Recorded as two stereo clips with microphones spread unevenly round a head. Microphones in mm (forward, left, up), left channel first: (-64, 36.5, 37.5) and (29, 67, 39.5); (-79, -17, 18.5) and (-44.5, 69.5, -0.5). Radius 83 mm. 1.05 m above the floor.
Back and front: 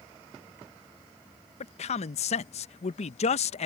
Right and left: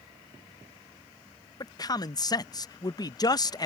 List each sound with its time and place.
1.6 s a man speaking: 160° right